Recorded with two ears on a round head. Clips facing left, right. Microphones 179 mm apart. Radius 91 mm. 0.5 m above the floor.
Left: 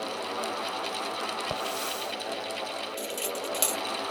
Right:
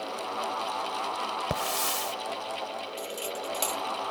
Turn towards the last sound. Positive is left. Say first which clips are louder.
# left 2 dB
turn(degrees=20)  # may be behind; listen again after turning